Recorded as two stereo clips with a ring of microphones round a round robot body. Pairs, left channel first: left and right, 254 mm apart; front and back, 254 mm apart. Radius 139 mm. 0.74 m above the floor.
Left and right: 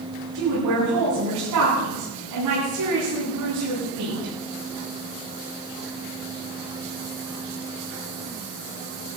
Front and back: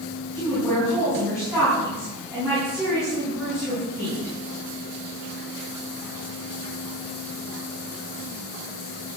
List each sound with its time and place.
0.3 s a woman speaking: 95° right, 8.5 m